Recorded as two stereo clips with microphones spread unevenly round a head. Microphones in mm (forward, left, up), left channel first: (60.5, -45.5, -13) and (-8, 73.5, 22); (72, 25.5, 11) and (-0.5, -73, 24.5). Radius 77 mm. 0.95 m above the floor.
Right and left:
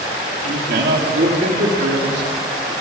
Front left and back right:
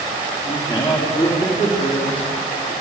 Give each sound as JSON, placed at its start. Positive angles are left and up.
{"t": 0.5, "sound": "a man speaking", "azimuth_deg": 105, "distance_m": 2.5}